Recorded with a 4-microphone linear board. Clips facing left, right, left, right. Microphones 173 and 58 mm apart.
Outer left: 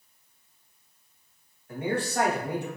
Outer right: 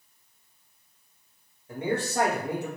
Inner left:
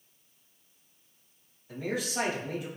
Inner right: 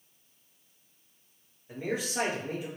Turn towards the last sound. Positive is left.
turn(degrees=-25)  # may be behind; listen again after turning